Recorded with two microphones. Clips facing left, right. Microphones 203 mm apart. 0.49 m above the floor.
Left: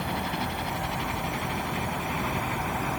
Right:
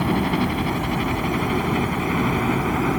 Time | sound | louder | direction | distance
0.0 | a helicopter | right 11 dB | 70° right (ahead or behind) | ?